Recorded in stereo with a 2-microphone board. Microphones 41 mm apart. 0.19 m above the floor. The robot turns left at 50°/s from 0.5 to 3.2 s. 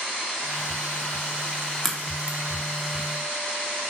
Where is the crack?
5° left (ahead or behind), 0.5 m; by 2.4 s 25° left (ahead or behind), 0.5 m.